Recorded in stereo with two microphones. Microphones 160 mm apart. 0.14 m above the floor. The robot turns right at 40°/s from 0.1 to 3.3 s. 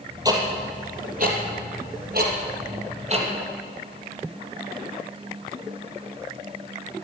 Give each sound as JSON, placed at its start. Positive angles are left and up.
{"t": 0.2, "sound": "ticking", "side_deg": -20, "distance_m": 3.0}